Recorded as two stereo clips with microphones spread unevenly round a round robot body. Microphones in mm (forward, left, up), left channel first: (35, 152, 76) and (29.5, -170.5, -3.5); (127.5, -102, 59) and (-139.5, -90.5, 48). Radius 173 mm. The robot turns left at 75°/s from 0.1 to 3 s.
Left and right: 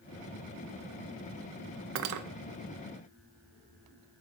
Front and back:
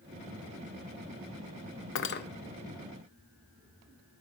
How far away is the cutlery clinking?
About 0.6 m.